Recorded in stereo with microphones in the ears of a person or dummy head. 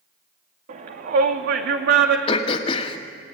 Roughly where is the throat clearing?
Left.